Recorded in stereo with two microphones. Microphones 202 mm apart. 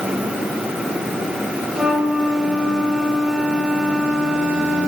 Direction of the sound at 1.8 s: 5° right (ahead or behind).